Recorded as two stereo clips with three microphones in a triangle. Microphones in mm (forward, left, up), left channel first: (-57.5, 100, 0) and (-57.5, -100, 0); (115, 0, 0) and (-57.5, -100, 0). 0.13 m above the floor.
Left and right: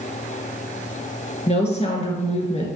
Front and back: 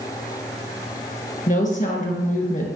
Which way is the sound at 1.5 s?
50° left.